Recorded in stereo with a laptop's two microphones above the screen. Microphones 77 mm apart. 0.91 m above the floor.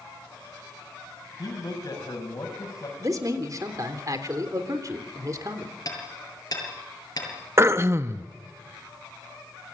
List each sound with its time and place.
1.4 s a man speaking: 50° left (ahead or behind), 6.5 m
3.0 s a man speaking: 45° right (ahead or behind), 3 m
5.8 s hammering: 50° left (ahead or behind), 7 m
7.6 s throat clearing: 30° right (ahead or behind), 0.8 m